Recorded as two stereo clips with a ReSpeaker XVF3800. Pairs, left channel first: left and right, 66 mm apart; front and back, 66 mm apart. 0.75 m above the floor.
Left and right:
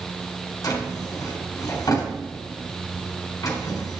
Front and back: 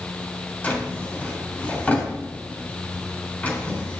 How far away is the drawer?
About 3.5 m.